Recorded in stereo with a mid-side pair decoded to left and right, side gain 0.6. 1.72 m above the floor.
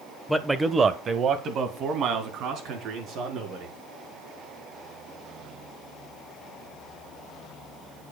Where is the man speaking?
10° left, 1.0 m; by 3.7 s 60° right, 5.5 m.